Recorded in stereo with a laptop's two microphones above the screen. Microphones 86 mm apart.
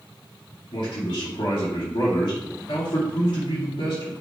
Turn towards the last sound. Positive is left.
turn(degrees=75)  # may be behind; listen again after turning